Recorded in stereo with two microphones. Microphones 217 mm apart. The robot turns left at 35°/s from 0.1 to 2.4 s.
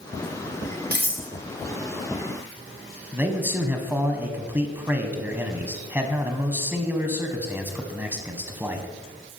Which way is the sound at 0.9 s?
50° right (ahead or behind).